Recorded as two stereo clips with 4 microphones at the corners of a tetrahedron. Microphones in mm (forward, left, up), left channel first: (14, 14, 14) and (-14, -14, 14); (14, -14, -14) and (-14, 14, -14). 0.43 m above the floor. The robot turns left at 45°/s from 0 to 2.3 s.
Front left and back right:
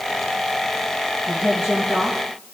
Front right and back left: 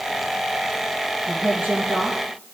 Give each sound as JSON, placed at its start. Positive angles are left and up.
{"t": 1.3, "sound": "a woman speaking", "azimuth_deg": 160, "distance_m": 10.0}